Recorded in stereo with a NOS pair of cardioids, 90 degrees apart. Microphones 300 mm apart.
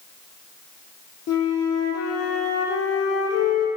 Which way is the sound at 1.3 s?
55° left.